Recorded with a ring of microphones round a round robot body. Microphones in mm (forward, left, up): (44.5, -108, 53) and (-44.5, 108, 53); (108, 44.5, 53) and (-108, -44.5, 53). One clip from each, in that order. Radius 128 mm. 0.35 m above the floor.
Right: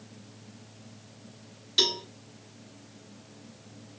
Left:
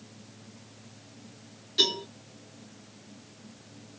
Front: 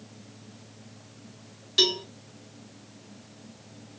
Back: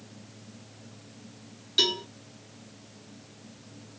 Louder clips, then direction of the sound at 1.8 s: Even, front 2 dB; 50° right.